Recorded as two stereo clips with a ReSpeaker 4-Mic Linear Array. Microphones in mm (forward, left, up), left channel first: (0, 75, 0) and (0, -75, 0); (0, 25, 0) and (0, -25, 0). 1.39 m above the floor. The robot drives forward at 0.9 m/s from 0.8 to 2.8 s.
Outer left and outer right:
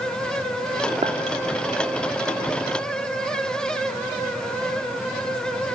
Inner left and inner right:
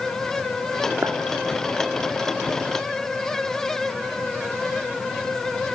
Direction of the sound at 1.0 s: 40° right (ahead or behind).